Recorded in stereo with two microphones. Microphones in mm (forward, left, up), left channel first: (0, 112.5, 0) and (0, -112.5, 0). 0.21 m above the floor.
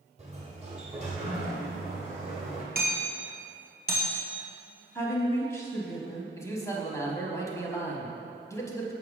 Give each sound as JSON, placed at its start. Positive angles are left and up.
{"t": 0.2, "sound": "a sliding door", "side_deg": -30, "distance_m": 1.6}
{"t": 2.8, "sound": "hammering", "side_deg": -50, "distance_m": 1.6}
{"t": 5.0, "sound": "a woman speaking", "side_deg": 10, "distance_m": 1.0}
{"t": 6.3, "sound": "a man speaking", "side_deg": 15, "distance_m": 1.0}